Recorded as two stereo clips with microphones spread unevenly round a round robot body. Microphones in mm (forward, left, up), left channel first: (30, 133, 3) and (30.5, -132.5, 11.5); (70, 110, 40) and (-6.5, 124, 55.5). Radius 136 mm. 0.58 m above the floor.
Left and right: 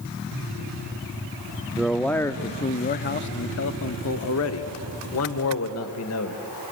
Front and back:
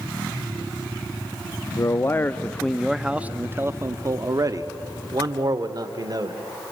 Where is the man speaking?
5° right, 0.9 m; by 6.4 s 130° left, 2 m.